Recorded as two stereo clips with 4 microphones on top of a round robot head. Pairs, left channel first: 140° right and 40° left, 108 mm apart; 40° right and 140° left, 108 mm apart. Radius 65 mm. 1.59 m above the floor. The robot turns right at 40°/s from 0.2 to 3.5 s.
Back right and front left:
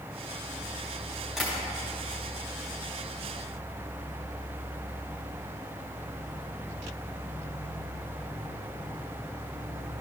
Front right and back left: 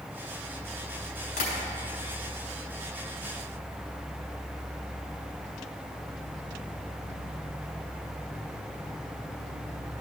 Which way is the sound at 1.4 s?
50° right.